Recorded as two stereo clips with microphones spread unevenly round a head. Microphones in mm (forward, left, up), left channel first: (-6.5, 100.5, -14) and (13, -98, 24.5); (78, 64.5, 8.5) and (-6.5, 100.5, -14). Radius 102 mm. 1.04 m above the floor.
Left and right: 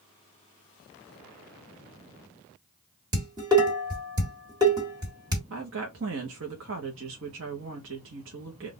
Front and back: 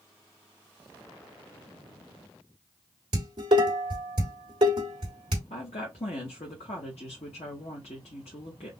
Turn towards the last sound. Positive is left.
turn(degrees=-60)